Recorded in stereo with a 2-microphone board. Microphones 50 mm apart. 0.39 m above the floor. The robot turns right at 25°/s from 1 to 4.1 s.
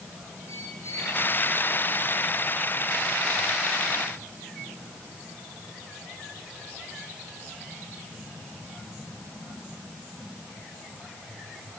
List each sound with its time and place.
0.5 s a squeak: 70° left (ahead or behind), 8.5 m; by 1.2 s 65° left (ahead or behind), 8.5 m